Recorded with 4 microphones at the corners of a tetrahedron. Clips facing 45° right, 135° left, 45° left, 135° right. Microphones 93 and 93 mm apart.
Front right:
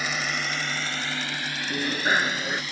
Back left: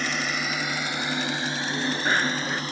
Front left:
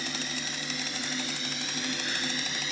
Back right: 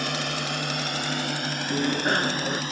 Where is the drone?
130° right; by 2.7 s 175° right.